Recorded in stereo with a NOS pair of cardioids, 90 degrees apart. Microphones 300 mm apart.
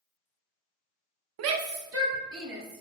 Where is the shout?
60° right, 0.6 m; by 2.8 s 45° right, 2.5 m.